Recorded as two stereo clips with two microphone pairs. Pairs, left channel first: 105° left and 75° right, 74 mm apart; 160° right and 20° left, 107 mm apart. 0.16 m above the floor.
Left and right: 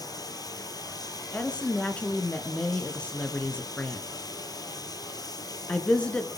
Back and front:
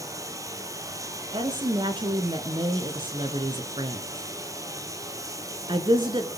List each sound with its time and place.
0.0 s running water: 80° left, 2.5 m
1.3 s a woman speaking: 35° left, 2.5 m